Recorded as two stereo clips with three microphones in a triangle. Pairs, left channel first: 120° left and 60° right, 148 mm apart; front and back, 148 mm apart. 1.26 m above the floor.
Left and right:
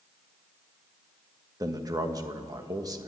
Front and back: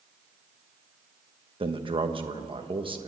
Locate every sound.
1.6 s a man speaking: 125° right, 1.3 m